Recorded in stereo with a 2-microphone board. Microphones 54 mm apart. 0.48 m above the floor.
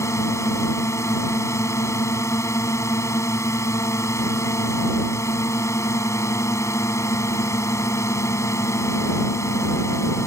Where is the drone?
70° left (ahead or behind).